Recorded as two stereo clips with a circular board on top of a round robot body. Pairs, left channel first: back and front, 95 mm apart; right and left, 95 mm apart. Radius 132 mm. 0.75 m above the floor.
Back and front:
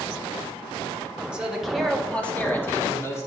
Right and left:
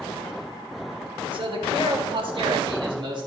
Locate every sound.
1.3 s a man speaking: 80° left, 1.8 m; by 3.3 s 125° left, 2.5 m